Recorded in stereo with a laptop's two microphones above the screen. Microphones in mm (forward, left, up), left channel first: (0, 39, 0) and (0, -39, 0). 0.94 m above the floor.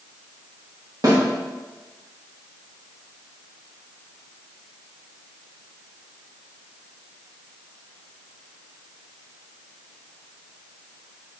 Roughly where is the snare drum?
Right.